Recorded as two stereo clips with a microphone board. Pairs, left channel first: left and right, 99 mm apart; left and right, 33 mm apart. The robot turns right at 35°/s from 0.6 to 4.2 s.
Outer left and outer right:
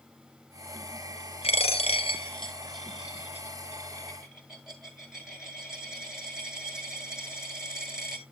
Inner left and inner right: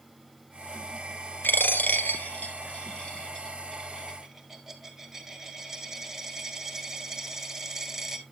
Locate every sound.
1.4 s a dropped coin: 90° left, 1.5 m; by 8.2 s 5° right (ahead or behind), 1.5 m